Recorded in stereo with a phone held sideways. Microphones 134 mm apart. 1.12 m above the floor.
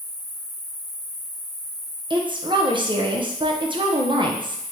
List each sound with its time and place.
0.0 s an insect: 25° right (ahead or behind), 1.5 m
2.1 s a woman speaking: 35° right (ahead or behind), 0.6 m